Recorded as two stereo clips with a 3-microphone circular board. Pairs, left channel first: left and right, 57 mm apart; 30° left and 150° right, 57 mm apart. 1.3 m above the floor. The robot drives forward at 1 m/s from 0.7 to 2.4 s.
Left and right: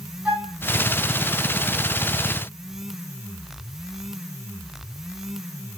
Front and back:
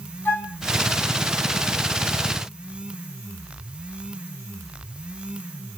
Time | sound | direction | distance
0.2 | a flute | 20° right | 3 m